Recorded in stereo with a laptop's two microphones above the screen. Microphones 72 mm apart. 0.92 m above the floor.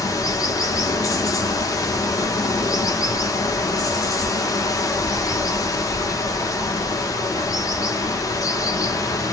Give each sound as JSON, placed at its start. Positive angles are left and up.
{"t": 0.0, "sound": "running water", "side_deg": 50, "distance_m": 0.8}